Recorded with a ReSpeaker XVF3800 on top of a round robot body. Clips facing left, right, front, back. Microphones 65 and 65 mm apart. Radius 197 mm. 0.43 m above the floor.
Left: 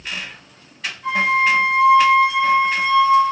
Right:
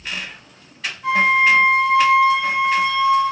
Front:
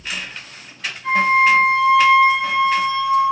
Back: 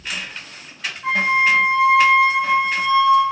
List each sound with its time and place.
1.0 s a flute: 175° left, 1.7 m